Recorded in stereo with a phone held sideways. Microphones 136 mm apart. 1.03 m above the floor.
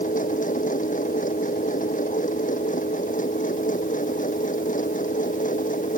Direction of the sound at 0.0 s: 75° left (ahead or behind).